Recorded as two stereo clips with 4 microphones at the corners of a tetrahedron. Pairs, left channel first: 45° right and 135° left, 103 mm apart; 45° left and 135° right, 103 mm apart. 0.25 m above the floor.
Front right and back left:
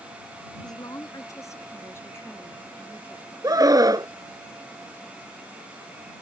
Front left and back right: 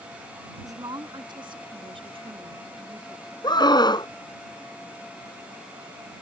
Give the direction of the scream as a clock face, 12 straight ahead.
9 o'clock.